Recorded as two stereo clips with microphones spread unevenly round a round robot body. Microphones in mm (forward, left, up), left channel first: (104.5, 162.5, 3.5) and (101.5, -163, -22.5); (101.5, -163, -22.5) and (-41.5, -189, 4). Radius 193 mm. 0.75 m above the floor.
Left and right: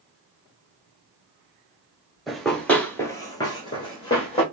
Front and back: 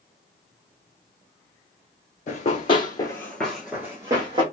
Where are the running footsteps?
5° left, 0.8 m; by 4.4 s 155° left, 1.0 m.